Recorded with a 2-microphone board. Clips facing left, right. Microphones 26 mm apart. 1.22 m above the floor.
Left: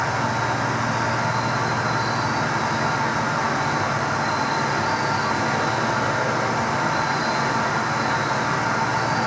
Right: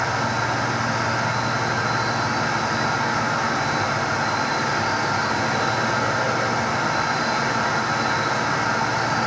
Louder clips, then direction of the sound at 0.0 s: Even; 5° left (ahead or behind).